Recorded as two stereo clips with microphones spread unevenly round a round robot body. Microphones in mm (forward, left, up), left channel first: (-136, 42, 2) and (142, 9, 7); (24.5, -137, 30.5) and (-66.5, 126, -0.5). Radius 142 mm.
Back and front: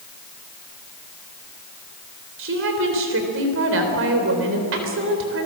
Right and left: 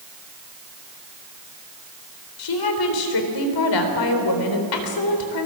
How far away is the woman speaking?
About 3.5 m.